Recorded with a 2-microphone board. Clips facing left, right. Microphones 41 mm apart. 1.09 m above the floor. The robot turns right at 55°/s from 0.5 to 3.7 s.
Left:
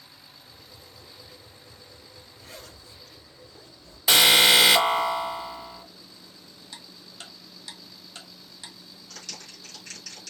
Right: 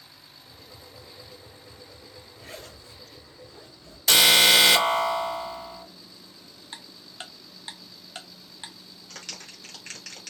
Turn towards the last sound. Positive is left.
turn(degrees=-40)  # may be behind; listen again after turning